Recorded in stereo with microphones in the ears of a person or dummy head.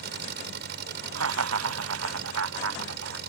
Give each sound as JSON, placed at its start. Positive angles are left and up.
{"t": 0.0, "sound": "an engine running", "side_deg": -55}
{"t": 1.1, "sound": "laughter", "side_deg": -85}